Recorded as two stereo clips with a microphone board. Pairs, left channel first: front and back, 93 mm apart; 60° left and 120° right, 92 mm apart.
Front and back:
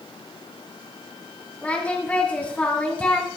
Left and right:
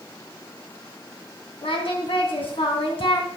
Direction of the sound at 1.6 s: 75° left.